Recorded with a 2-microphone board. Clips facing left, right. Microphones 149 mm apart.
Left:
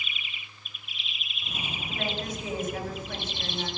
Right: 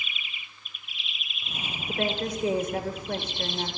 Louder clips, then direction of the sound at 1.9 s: Right 5 dB; 60° right (ahead or behind).